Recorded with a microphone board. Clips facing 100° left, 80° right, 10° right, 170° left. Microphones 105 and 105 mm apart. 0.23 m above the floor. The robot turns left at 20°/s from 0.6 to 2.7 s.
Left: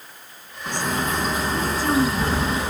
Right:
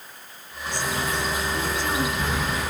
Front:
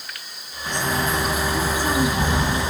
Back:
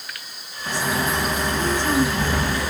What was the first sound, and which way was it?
A bird, 90° left.